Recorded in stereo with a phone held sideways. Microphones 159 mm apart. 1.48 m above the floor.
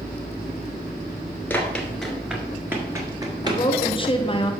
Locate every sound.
1.5 s running footsteps: 10° left (ahead or behind), 1.6 m; by 3.6 s 30° right (ahead or behind), 1.8 m
3.4 s a woman speaking: 30° left (ahead or behind), 1.1 m